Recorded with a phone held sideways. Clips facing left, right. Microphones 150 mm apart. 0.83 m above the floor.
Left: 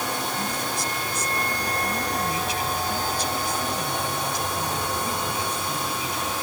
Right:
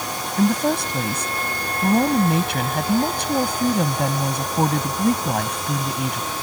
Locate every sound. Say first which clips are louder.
0.4 s a woman speaking: right 10 dB; 65° right (ahead or behind)